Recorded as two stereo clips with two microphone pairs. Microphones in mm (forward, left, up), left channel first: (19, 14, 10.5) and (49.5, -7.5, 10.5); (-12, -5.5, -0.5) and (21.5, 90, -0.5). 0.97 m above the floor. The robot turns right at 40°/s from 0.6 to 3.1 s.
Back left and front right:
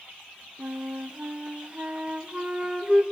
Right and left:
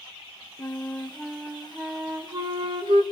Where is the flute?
40° right, 1.3 m; by 3.0 s 55° left, 1.3 m.